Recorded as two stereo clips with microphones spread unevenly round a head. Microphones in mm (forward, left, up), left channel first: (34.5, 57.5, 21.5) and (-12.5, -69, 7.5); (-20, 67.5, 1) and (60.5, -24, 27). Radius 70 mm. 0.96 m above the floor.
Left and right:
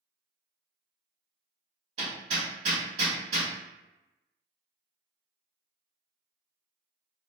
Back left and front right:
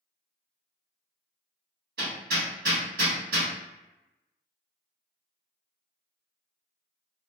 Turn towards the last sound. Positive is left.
turn(degrees=-70)